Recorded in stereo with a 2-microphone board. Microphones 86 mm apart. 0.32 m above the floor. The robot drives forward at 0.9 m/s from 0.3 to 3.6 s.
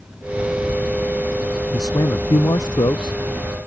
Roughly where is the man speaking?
Left.